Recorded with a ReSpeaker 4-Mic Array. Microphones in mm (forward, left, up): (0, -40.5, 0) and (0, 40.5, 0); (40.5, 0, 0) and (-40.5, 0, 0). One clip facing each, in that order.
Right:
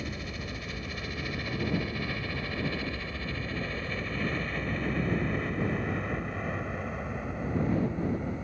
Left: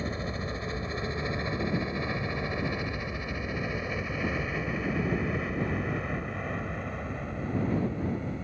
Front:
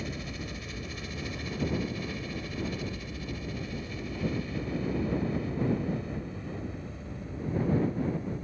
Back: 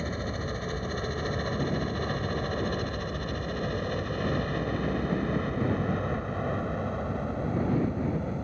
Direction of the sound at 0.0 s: 145° left.